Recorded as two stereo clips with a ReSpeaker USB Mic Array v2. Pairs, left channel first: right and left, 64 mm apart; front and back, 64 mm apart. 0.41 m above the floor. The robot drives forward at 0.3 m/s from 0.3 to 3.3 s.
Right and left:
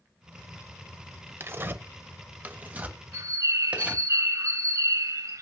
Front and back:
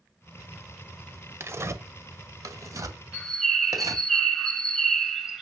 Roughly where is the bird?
Left.